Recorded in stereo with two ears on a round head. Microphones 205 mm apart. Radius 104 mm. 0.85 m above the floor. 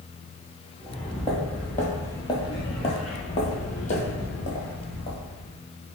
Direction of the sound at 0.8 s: Centre (ahead or behind).